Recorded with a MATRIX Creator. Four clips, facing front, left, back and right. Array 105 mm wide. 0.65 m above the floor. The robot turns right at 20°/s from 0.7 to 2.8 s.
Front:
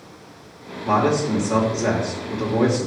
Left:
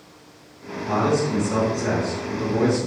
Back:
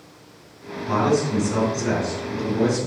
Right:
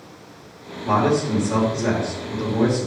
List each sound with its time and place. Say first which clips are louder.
0.8 s a man speaking: right 2 dB, front 1 dB; 25° right, 2.5 m; by 2.9 s 15° left, 2.5 m